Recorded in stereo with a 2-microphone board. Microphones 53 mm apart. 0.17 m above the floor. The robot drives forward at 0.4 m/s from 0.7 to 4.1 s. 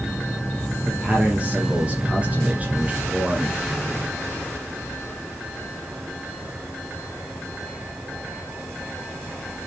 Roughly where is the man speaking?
Centre.